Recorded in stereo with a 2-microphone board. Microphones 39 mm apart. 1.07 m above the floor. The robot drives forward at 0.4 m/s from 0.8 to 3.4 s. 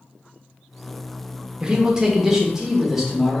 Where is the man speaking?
25° right (ahead or behind), 0.7 m; by 3.4 s 10° right (ahead or behind), 1.3 m.